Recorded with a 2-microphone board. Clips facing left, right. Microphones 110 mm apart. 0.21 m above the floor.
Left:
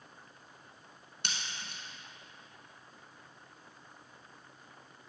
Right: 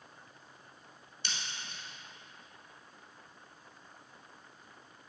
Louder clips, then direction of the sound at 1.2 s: Left 1 dB; 65° left (ahead or behind).